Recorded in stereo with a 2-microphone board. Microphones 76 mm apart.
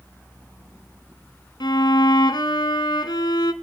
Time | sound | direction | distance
1.6 | a violin | 70° left (ahead or behind) | 1.4 m